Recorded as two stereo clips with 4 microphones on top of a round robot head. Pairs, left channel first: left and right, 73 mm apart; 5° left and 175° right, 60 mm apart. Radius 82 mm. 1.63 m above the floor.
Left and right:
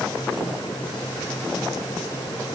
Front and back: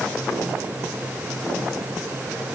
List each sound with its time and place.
Only background noise.